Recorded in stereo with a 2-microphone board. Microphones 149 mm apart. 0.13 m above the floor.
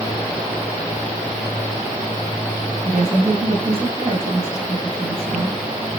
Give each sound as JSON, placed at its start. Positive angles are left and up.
{"t": 2.9, "sound": "a woman speaking", "side_deg": -45, "distance_m": 9.0}